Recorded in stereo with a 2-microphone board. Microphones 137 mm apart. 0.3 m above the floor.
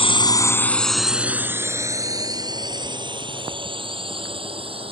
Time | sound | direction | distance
0.0 | a drone | 45° left (ahead or behind) | ?